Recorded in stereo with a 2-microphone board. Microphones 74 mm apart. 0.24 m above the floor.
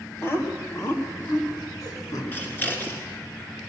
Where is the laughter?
30° left (ahead or behind), 1.3 m; by 2.2 s 55° left (ahead or behind), 3 m.